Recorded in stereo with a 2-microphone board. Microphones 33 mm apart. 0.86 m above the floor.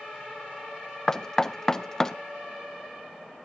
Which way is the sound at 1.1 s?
20° left (ahead or behind).